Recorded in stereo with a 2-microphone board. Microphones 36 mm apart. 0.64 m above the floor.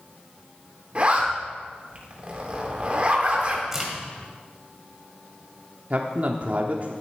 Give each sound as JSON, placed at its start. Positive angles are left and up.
{"t": 0.9, "sound": "a zipper", "side_deg": -35, "distance_m": 2.0}
{"t": 3.7, "sound": "a crack", "side_deg": -10, "distance_m": 2.5}
{"t": 5.9, "sound": "a man speaking", "side_deg": -45, "distance_m": 1.0}